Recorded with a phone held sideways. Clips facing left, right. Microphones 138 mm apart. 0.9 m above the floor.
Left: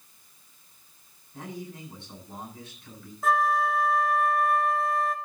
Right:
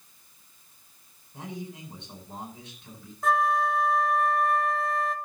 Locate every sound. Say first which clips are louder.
1.3 s a man speaking: even; 20° right (ahead or behind), 9.5 m
3.2 s a flute: even; centre (ahead or behind), 1.3 m